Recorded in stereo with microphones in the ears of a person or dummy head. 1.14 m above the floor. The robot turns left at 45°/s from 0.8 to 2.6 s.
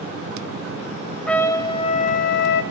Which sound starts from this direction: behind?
A trumpet, at 1.3 s.